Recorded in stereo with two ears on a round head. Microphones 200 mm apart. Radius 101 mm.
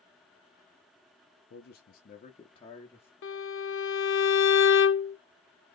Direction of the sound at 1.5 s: 50° left (ahead or behind).